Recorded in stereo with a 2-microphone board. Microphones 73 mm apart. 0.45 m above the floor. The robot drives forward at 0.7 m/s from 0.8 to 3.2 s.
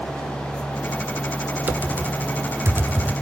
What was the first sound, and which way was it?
Typing on a keyboard, 25° right (ahead or behind).